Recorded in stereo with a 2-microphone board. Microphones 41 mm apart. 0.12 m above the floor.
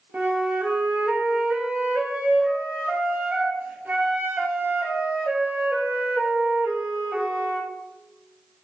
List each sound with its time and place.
0.1 s a flute: 55° right (ahead or behind), 0.7 m